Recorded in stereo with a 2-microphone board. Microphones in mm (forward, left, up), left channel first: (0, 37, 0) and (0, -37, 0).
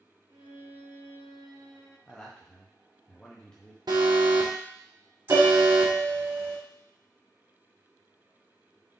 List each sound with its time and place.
0.3 s a violin: 65° right (ahead or behind), 1.8 m
2.1 s a man speaking: 10° left (ahead or behind), 0.6 m
3.9 s an alarm: 65° right (ahead or behind), 0.8 m
5.3 s a piano: 35° right (ahead or behind), 1.4 m